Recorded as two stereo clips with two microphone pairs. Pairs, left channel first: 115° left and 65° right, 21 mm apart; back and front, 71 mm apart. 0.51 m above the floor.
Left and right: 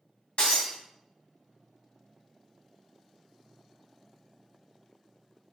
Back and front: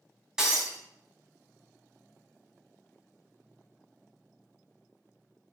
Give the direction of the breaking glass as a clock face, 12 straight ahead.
9 o'clock.